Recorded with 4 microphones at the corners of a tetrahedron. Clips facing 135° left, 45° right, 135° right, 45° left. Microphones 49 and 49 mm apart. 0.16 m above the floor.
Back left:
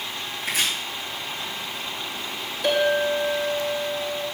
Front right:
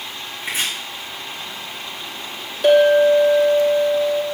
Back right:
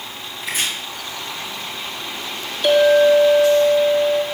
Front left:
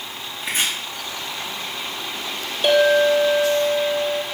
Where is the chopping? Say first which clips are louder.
Front right 1 dB, front left 1 dB; 15° left, 5.5 m.